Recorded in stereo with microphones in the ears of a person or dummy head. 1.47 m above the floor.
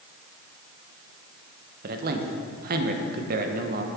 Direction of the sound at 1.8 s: 55° right (ahead or behind).